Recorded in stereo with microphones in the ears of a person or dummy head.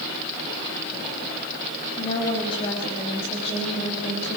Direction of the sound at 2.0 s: 30° left (ahead or behind).